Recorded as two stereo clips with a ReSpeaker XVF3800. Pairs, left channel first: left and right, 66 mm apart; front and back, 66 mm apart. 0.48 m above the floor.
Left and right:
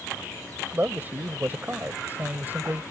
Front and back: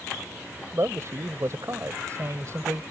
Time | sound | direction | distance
0.7 | a man speaking | 145° right | ?